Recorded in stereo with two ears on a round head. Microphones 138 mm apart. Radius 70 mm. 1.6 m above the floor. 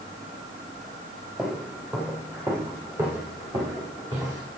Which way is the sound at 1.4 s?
5° right (ahead or behind).